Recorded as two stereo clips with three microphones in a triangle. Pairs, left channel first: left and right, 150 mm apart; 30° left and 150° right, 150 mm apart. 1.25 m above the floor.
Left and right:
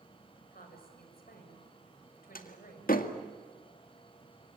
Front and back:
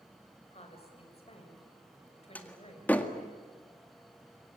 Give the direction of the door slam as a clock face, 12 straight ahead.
8 o'clock.